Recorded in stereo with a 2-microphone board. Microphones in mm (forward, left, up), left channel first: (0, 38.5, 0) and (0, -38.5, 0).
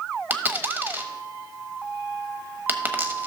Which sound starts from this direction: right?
A dropped coin, at 0.3 s.